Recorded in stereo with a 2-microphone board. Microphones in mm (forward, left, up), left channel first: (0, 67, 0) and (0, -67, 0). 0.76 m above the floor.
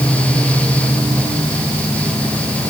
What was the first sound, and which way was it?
Only background noise.